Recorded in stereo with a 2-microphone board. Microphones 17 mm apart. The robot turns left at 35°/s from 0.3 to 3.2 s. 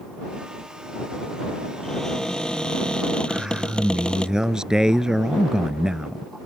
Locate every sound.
1.8 s a cupboard door: 145° left; by 4.3 s 100° left
3.3 s a man speaking: 40° right (ahead or behind)